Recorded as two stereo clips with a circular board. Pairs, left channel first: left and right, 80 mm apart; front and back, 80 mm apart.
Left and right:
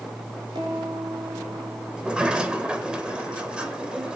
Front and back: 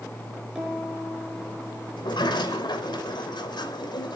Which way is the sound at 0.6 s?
105° right.